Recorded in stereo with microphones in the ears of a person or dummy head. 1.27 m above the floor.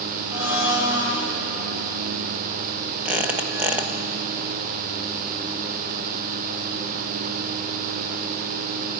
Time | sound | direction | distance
0.3 | a blender | 10° right (ahead or behind) | 4.5 m
3.0 | a squeak | 10° right (ahead or behind) | 0.7 m